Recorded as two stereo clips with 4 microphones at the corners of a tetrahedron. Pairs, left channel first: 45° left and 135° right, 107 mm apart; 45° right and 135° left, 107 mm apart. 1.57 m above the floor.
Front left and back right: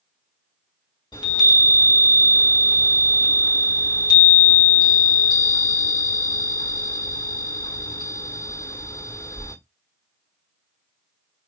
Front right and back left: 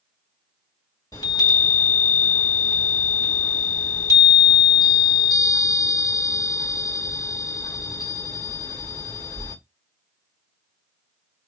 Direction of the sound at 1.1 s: 5° left.